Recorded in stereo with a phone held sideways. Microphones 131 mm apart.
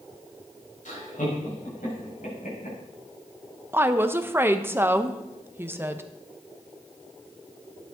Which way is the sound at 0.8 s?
75° left (ahead or behind).